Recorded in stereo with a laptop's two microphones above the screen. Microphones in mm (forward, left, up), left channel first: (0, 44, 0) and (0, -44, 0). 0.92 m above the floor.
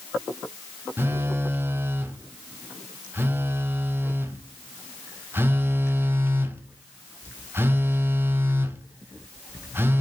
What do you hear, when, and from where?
1.0 s a phone buzzing: 25° right (ahead or behind), 0.6 m